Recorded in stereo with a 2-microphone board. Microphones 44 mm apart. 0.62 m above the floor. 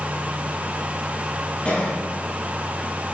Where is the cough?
25° left (ahead or behind), 5 m.